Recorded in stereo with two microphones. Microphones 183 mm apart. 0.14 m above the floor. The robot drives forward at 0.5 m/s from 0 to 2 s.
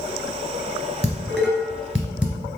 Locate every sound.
1.0 s dishes clattering: 5° right (ahead or behind), 1.7 m